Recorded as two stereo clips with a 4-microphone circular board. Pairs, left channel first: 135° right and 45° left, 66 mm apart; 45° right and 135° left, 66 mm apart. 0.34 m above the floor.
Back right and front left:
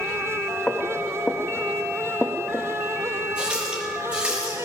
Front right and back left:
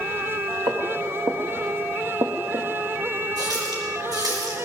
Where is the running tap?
120° left, 6 m.